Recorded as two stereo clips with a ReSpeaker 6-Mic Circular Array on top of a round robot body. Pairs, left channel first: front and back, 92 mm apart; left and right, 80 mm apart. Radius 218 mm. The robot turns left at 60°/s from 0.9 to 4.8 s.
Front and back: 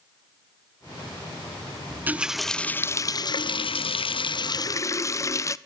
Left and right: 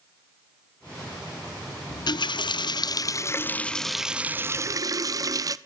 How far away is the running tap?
About 0.6 m.